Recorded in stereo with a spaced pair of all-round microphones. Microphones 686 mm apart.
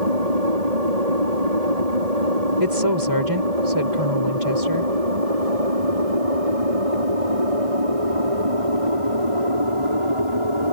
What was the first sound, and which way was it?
An aircraft, 65° right (ahead or behind).